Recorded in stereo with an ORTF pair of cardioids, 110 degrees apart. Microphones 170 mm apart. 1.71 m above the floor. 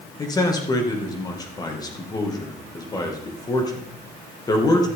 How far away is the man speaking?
About 2.5 m.